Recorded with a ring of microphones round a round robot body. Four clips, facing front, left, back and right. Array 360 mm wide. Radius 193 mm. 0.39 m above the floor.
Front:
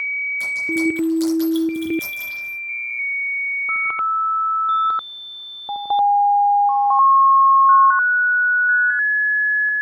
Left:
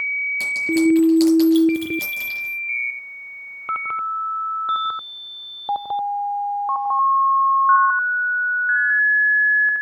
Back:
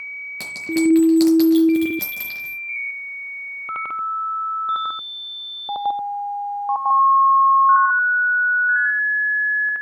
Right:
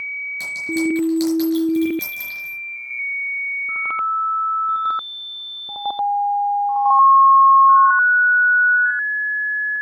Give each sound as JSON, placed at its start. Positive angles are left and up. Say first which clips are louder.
{"t": 0.4, "sound": "a clink", "louder": "left 4 dB, back 3 dB", "azimuth_deg": 175, "distance_m": 5.5}